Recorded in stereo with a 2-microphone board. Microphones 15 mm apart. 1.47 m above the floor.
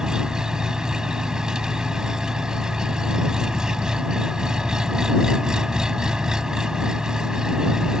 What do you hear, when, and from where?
0.0 s an engine running: 40° right (ahead or behind)